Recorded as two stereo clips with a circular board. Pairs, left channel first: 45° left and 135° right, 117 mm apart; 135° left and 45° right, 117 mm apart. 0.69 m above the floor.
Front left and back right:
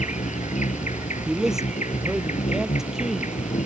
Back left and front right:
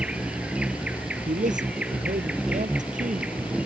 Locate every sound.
0.0 s an insect: 35° left
1.3 s a man speaking: 50° right